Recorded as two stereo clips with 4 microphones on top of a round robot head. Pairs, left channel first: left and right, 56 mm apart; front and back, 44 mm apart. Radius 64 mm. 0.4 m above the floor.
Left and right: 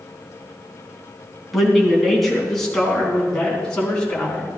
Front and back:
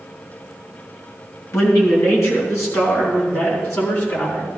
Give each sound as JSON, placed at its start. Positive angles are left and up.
{"t": 1.5, "sound": "a man speaking", "azimuth_deg": 0, "distance_m": 4.0}